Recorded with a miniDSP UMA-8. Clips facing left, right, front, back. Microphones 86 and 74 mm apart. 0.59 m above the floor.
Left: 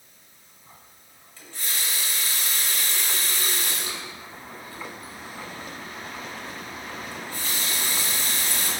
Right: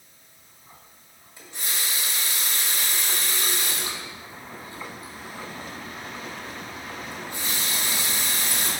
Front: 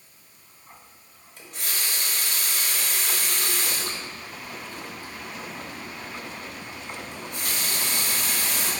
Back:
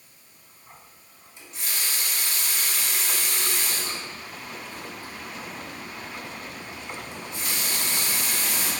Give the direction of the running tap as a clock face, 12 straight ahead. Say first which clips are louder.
Right 1 dB, front 1 dB; 1 o'clock.